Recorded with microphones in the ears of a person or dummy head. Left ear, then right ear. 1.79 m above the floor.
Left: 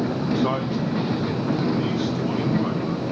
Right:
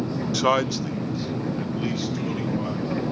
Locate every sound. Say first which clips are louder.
0.3 s a man speaking: right 6 dB; 60° right (ahead or behind), 0.7 m; by 3.1 s 15° right (ahead or behind), 4 m